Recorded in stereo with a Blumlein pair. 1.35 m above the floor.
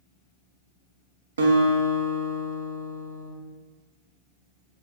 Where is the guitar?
65° right, 0.5 m.